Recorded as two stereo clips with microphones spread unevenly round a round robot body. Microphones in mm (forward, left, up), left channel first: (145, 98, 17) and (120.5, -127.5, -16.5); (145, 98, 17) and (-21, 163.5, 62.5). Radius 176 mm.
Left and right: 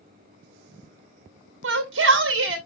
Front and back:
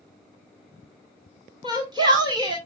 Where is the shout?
125° right, 1.8 m.